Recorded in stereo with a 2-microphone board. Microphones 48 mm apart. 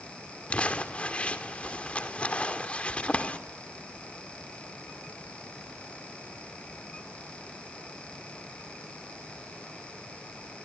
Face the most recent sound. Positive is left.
turn(degrees=25)  # may be behind; listen again after turning